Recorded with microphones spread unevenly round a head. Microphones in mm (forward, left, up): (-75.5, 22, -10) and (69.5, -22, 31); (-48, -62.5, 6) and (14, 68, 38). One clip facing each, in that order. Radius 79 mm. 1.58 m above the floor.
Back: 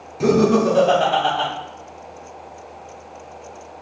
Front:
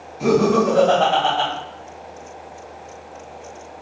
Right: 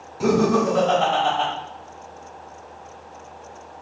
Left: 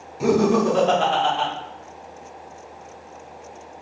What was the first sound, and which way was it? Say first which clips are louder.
Laughter: back 1 dB, left 1 dB; 150° left.